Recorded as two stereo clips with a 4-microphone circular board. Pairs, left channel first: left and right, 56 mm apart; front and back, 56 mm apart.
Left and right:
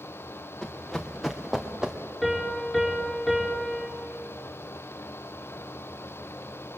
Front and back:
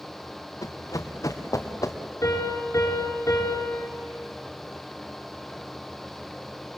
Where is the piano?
Straight ahead, 5 m.